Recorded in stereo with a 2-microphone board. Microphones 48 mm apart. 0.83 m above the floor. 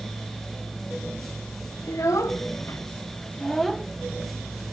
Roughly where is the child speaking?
Left.